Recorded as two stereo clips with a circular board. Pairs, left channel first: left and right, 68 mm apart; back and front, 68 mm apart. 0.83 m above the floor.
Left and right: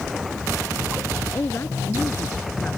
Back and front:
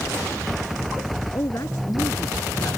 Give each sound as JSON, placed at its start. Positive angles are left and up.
{"t": 1.3, "sound": "a woman speaking", "azimuth_deg": 145}